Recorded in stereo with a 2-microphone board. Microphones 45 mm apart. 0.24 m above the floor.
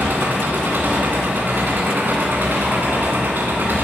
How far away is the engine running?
About 2 m.